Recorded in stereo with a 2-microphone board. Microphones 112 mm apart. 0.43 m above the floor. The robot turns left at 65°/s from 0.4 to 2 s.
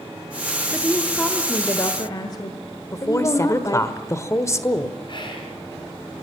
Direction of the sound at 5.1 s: 50° left (ahead or behind).